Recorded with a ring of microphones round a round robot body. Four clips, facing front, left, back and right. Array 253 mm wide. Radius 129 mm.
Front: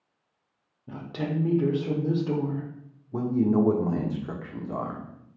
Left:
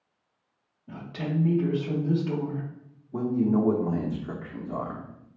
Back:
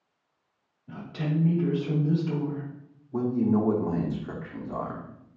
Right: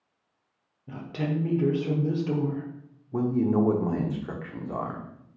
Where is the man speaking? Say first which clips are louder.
Even, front 1 dB; 55° right, 0.8 m.